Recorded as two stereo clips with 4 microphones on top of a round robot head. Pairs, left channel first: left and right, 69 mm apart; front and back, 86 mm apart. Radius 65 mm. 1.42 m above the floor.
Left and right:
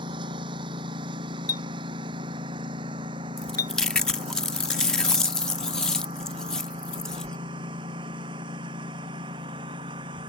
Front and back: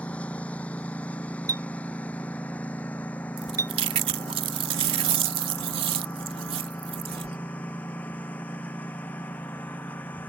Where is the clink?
125° left.